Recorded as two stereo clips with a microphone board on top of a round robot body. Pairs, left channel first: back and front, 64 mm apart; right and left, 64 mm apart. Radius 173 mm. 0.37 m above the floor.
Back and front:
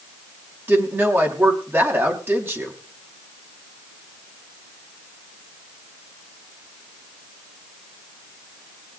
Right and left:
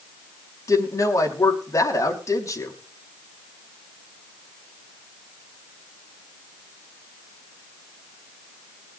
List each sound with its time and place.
0.7 s a woman speaking: 55° right, 4.5 m